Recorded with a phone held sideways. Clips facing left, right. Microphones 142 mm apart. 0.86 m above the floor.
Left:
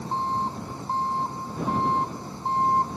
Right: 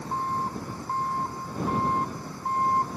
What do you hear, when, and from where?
0.0 s an engine running: 25° left (ahead or behind)